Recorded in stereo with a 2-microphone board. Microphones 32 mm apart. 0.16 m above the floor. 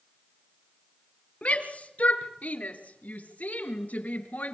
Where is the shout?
50° left (ahead or behind), 3 m; by 4.5 s 60° left (ahead or behind), 3 m.